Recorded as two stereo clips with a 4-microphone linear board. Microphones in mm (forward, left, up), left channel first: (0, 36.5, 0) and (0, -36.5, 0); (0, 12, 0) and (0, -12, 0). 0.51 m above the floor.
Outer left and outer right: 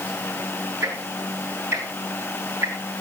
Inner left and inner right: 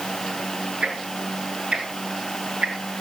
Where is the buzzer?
No buzzer in this recording.